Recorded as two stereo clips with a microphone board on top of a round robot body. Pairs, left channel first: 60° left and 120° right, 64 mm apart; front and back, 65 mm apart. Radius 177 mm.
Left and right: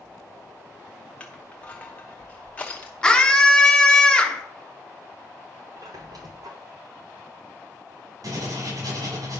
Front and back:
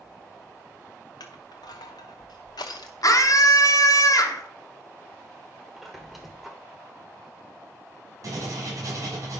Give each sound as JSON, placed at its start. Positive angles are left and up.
{"t": 1.2, "sound": "crushing", "azimuth_deg": -10, "distance_m": 0.8}
{"t": 3.0, "sound": "a scream", "azimuth_deg": -15, "distance_m": 1.7}
{"t": 5.8, "sound": "a squeak", "azimuth_deg": -90, "distance_m": 0.9}
{"t": 8.2, "sound": "writing", "azimuth_deg": -140, "distance_m": 6.5}